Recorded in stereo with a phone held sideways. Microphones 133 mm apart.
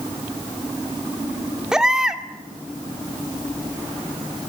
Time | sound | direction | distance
1.7 | a baby crying | 5° right (ahead or behind) | 1.7 m